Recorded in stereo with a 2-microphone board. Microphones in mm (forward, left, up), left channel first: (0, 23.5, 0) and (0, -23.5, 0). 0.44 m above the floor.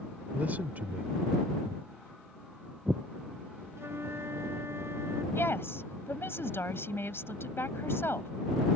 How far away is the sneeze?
No sneeze in this recording.